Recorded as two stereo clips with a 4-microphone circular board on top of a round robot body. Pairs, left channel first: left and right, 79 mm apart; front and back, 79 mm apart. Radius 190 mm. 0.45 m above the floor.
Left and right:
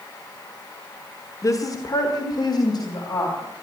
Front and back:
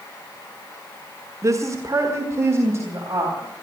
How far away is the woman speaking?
About 1.5 m.